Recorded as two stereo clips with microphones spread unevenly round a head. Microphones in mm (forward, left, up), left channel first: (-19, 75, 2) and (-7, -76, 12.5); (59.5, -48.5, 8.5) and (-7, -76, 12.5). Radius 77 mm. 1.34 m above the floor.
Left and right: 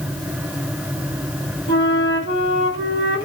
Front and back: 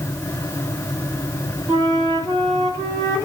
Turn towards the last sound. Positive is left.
turn(degrees=95)